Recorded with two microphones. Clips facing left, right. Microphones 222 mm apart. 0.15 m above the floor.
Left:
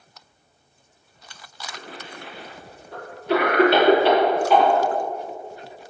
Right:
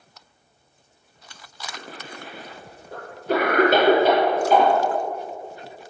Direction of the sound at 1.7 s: 45° right (ahead or behind).